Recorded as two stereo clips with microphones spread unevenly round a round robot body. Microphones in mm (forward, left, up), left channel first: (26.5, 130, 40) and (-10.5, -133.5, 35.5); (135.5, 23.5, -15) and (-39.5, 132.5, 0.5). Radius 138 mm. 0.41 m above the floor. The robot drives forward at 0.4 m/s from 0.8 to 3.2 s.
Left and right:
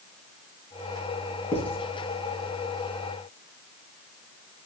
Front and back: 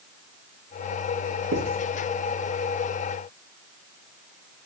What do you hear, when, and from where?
1.5 s writing: 165° left, 3 m